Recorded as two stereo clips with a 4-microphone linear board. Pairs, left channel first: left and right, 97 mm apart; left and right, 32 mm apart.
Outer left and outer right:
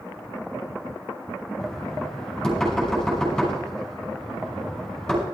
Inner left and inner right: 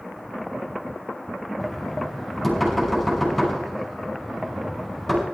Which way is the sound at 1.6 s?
5° left (ahead or behind).